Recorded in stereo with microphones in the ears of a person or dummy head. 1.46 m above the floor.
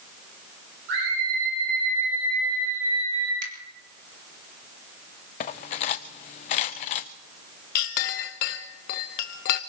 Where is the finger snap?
65° right (ahead or behind), 4 m.